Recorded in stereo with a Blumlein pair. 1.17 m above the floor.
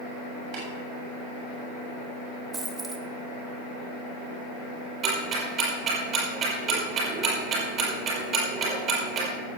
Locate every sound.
0.5 s tapping: 40° right, 7 m
2.5 s a dropped coin: 25° right, 1.8 m
5.0 s ticking: 30° right, 5 m